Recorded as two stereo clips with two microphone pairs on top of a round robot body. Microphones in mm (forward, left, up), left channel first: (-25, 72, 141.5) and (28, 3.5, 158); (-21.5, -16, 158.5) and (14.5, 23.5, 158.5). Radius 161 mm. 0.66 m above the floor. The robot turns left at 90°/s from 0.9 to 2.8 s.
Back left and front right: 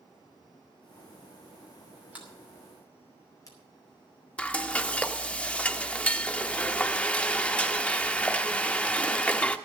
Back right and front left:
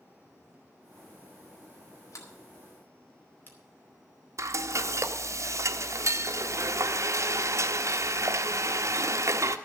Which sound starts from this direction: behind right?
A sliding door, at 2.1 s.